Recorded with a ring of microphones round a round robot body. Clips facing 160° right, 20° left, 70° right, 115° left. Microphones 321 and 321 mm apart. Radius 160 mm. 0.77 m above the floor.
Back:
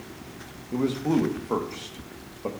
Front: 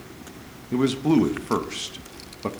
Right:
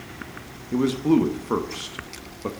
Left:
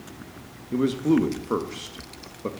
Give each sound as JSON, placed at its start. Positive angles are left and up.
{"t": 0.7, "sound": "a man speaking", "azimuth_deg": 15, "distance_m": 0.7}